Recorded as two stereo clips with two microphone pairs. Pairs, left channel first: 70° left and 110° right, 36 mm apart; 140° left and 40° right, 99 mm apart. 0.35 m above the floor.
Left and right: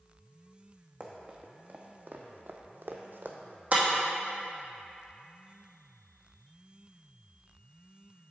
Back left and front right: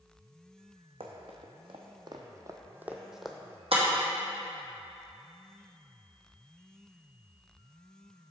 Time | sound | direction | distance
1.0 | running footsteps | 60° right | 1.4 m
3.7 | breaking glass | 60° right | 1.8 m